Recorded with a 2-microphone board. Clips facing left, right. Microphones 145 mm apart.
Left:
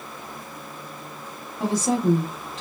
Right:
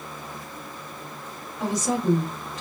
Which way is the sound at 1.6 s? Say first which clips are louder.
Left 3 dB; 30° left (ahead or behind).